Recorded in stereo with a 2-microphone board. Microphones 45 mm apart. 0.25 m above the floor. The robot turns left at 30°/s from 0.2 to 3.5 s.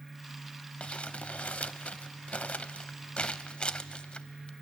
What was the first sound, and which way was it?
Crumpling, 25° left (ahead or behind).